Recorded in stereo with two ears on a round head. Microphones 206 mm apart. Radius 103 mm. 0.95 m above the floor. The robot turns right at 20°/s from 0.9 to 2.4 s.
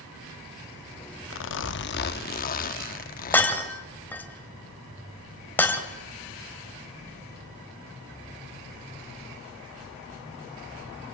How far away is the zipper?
About 0.8 m.